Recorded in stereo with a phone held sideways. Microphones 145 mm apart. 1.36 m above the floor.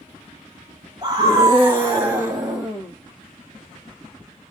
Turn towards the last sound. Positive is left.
turn(degrees=-5)  # may be behind; listen again after turning